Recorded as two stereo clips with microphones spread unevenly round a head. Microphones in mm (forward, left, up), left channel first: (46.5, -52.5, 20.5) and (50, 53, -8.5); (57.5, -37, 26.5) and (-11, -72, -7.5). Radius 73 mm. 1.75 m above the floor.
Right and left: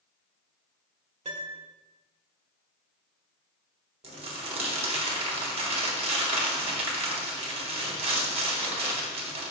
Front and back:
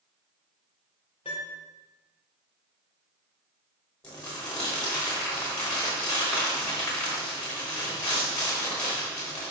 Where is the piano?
65° left, 1.5 m.